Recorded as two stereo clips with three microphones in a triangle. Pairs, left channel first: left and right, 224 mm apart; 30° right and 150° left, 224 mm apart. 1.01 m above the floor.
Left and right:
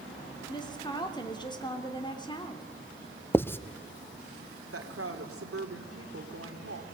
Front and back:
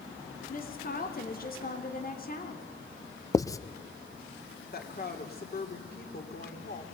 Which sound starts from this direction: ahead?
A woman speaking, at 0.5 s.